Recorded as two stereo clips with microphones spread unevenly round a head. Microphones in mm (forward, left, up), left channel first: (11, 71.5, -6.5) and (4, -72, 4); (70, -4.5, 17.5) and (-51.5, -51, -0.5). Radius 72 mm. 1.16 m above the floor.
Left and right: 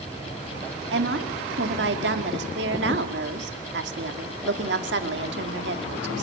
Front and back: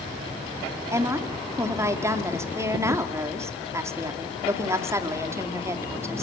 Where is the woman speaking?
90° right, 2 m.